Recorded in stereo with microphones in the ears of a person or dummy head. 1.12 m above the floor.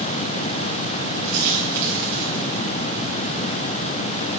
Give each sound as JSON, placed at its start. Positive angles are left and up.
{"t": 1.2, "sound": "a dropped coin", "side_deg": -55, "distance_m": 4.0}